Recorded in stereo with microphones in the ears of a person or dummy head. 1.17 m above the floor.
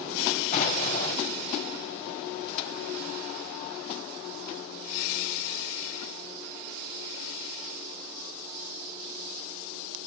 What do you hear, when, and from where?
0.5 s an explosion: 50° left (ahead or behind), 4 m